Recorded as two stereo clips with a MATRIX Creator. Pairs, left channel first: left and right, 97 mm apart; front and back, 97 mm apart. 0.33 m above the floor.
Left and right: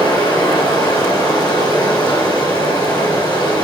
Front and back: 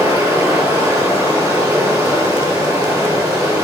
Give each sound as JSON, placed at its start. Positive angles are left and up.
{"t": 0.0, "sound": "running water", "azimuth_deg": 120, "distance_m": 1.7}